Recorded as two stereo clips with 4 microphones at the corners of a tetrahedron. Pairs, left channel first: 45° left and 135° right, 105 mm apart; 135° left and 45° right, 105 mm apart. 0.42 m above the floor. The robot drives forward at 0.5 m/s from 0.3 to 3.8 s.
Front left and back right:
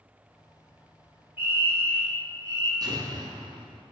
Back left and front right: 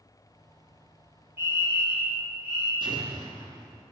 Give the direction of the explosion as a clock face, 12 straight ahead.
3 o'clock.